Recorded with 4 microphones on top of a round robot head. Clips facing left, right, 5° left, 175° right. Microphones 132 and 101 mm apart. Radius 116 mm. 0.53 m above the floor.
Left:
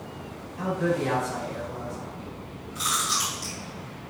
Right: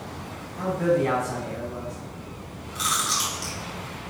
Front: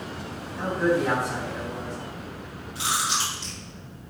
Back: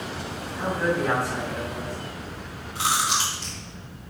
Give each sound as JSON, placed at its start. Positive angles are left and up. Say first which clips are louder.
{"t": 0.6, "sound": "a man speaking", "louder": "right 3 dB, front 2 dB", "azimuth_deg": -60, "distance_m": 5.0}
{"t": 2.8, "sound": "chewing", "louder": "right 1 dB, back 3 dB", "azimuth_deg": -120, "distance_m": 3.5}